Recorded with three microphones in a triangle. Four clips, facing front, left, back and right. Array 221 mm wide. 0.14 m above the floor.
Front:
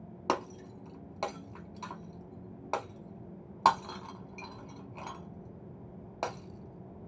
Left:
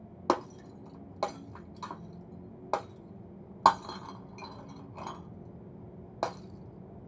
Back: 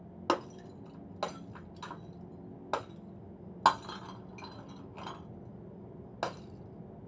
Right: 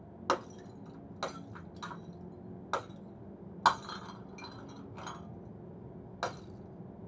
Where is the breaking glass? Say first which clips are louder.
Left 4 dB, even; 95° left, 0.8 m.